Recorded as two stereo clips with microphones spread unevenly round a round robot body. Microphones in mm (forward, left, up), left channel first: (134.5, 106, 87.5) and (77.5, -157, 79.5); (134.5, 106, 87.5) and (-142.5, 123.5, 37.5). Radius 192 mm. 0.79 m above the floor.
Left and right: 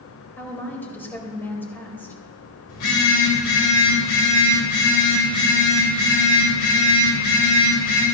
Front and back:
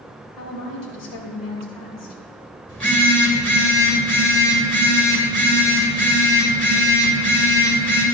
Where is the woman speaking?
5° right, 4 m.